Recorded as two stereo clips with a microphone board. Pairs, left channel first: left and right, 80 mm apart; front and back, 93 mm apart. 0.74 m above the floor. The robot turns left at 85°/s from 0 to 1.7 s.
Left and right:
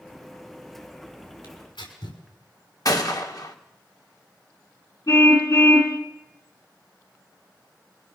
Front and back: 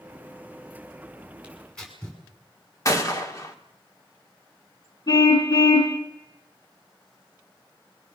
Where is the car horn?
45° left, 3 m.